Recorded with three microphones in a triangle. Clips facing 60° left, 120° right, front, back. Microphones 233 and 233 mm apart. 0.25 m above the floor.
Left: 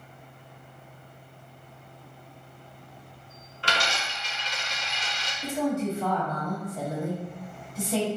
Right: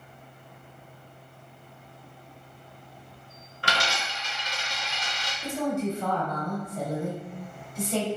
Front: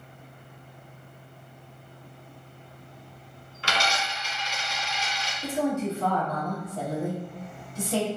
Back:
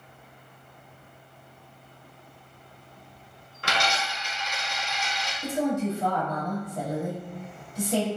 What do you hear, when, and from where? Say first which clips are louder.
3.6 s a dropped coin: even, back 1 dB; 155° right, 1.2 m
5.4 s a woman speaking: left 1 dB, back 1 dB; 135° left, 1.3 m